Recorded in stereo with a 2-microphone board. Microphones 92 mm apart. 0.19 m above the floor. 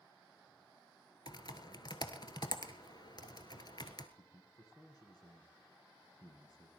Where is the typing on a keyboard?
50° left (ahead or behind), 1.0 m.